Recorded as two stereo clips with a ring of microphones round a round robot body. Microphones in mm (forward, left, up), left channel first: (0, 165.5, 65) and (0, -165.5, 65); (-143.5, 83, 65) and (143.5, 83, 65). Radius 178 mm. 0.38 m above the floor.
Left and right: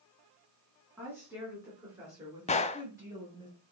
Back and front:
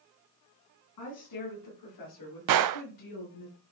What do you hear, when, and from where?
1.0 s a woman speaking: 175° right, 4.5 m; by 3.5 s 170° right, 6.5 m
2.5 s a gunshot: 20° left, 0.6 m